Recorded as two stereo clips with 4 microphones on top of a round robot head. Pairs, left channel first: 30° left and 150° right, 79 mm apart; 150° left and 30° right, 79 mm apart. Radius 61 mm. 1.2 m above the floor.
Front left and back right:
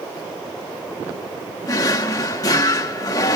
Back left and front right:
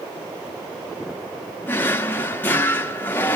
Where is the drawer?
80° left, 1.7 m.